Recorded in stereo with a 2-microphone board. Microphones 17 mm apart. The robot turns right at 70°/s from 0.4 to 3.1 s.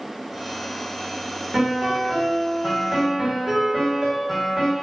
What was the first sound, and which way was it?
A piano, 145° right.